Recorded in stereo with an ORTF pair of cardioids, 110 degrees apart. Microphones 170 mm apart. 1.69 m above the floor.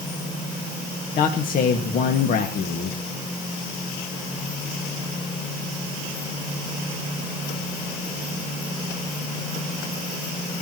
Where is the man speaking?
55° left, 2 m.